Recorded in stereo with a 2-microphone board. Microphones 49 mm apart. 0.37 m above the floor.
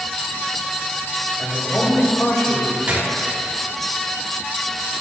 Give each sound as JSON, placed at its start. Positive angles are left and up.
{"t": 1.4, "sound": "a man speaking", "side_deg": 45, "distance_m": 1.5}
{"t": 2.9, "sound": "a gunshot", "side_deg": -35, "distance_m": 1.2}